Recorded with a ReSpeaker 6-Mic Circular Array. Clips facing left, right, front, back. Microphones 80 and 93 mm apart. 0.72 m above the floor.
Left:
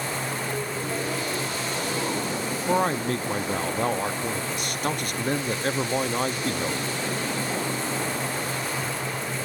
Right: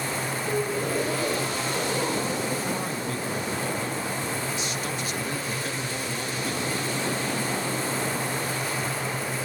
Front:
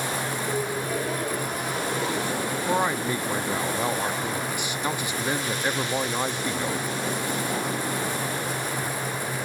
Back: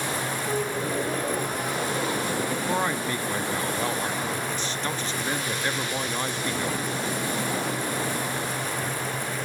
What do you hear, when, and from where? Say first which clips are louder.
0.5 s a gasp: right 3 dB, back 1 dB; 115° right, 8.5 m
2.7 s a man speaking: left 6 dB, front 5 dB; 75° left, 0.7 m